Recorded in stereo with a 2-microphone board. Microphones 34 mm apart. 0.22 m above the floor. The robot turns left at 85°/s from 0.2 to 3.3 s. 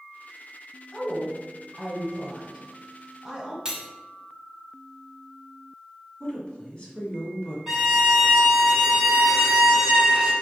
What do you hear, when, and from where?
0.9 s a woman speaking: 30° left (ahead or behind), 1.1 m; by 3.5 s 20° right (ahead or behind), 1.1 m
3.6 s cutlery clinking: 20° right (ahead or behind), 0.7 m
6.2 s a woman speaking: 35° left (ahead or behind), 1.6 m
7.7 s a violin: 10° right (ahead or behind), 1.6 m